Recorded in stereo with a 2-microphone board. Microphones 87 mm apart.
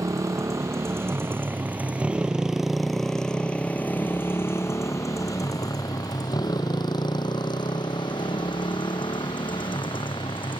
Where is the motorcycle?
40° right (ahead or behind); by 10.6 s 70° left (ahead or behind).